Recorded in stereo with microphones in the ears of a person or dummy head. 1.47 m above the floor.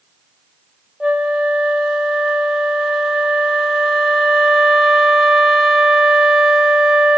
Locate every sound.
1.0 s a flute: centre (ahead or behind), 0.5 m